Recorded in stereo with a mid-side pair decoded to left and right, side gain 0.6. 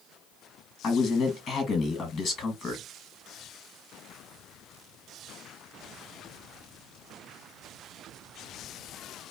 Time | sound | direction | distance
0.8 | a man speaking | 40° left | 1.5 m